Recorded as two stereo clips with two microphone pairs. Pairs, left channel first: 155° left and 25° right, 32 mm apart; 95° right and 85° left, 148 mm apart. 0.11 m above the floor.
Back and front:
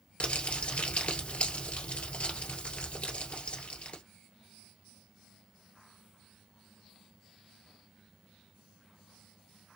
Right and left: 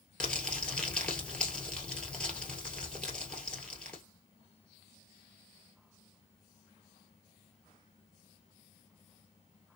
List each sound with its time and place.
0.2 s crumpling: straight behind, 1.6 m